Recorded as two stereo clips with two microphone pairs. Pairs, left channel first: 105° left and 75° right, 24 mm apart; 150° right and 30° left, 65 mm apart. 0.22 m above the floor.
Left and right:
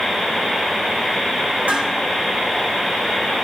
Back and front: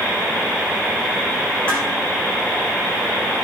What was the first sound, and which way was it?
Dishes clattering, 80° right.